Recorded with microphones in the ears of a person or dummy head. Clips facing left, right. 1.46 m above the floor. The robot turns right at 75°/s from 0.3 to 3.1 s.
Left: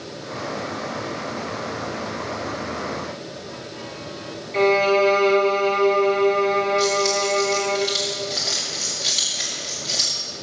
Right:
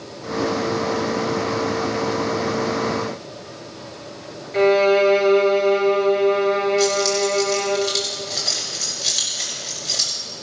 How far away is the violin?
About 1.5 m.